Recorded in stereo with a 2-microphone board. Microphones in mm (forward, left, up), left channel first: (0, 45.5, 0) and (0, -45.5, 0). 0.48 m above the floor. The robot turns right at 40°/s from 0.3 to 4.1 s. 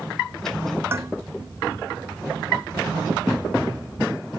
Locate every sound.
0.9 s dishes clattering: 25° right (ahead or behind); by 1.1 s 35° right (ahead or behind)